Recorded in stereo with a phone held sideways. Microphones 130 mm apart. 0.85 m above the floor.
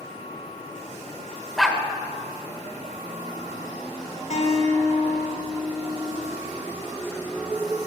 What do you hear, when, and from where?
1.6 s a dog barking: centre (ahead or behind), 1.1 m
4.3 s a guitar: 80° left, 3 m